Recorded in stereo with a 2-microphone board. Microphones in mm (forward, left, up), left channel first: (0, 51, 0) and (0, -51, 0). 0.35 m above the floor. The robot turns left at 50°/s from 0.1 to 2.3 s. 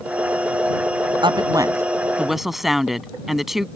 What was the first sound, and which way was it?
A woman speaking, 125° right.